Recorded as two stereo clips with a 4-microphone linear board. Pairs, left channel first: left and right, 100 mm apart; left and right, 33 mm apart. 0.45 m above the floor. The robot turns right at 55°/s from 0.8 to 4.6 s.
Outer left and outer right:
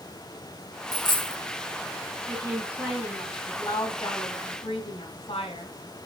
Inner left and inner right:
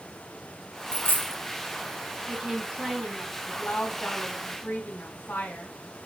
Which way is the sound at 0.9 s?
40° left (ahead or behind).